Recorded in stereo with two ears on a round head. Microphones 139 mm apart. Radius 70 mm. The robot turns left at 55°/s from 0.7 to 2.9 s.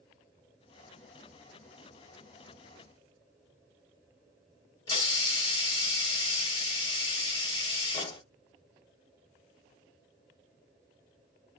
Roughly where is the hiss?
Left.